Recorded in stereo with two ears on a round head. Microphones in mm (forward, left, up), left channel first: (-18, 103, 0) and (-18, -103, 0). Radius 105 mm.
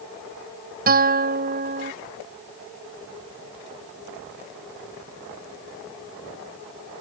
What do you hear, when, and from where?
0.9 s a guitar: 40° right (ahead or behind)